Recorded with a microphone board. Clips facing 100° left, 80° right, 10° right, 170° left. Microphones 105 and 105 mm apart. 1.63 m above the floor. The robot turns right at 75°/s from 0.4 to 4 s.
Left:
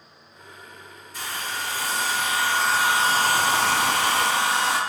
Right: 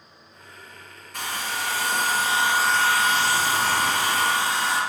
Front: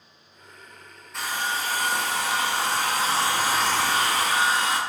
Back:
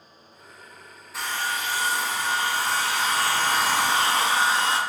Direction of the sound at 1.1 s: 105° right.